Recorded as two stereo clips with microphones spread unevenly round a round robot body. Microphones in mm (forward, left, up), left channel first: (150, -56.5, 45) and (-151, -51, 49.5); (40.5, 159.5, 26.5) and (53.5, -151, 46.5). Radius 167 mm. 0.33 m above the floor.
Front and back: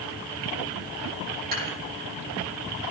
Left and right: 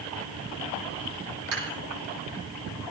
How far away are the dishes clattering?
About 8 m.